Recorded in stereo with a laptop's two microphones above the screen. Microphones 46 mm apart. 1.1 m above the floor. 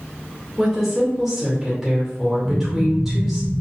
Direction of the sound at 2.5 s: 35° right (ahead or behind).